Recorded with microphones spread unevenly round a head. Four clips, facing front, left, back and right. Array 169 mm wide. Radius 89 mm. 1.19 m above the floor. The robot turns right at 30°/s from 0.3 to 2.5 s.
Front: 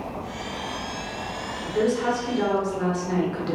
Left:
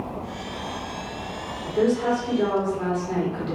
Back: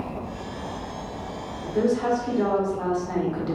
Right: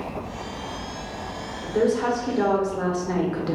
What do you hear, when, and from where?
1.6 s a woman speaking: 95° right, 1.4 m; by 3.6 s 70° right, 1.4 m